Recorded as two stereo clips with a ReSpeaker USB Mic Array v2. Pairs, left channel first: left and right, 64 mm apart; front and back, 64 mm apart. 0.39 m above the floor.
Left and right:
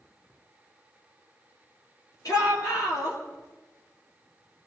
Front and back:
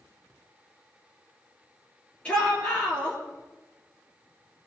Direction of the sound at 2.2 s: 70° left.